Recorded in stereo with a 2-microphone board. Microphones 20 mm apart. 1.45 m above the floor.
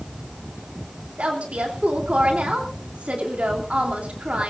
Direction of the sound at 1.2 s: 85° right.